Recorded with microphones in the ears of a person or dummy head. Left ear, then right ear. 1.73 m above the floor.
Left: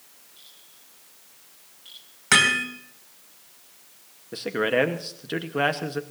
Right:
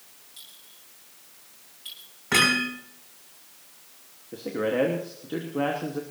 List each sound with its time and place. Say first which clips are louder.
0.4 s a clink: right 4 dB; 25° right (ahead or behind), 9 m
2.3 s hammering: left 3 dB; 75° left (ahead or behind), 4.5 m
4.3 s a man speaking: left 3 dB; 60° left (ahead or behind), 1.1 m